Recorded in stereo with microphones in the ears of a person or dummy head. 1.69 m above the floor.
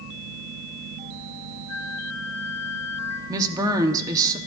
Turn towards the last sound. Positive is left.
turn(degrees=-15)  # may be behind; listen again after turning